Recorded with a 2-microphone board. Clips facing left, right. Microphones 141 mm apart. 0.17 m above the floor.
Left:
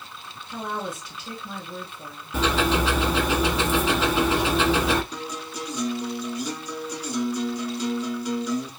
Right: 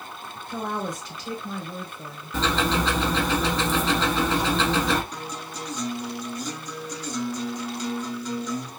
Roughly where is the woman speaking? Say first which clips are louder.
Right 1 dB; right.